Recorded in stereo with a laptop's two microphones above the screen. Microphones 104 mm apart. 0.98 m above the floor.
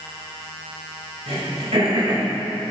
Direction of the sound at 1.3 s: 90° right.